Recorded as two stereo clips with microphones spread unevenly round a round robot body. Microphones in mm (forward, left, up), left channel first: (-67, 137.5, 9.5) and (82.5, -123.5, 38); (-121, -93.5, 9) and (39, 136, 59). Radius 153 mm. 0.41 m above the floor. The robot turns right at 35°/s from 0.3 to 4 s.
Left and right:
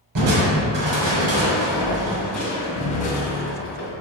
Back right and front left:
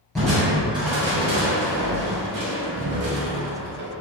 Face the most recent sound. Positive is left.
turn(degrees=90)